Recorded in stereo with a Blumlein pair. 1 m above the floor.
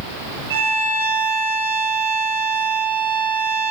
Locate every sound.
0.5 s a violin: 55° right, 6.5 m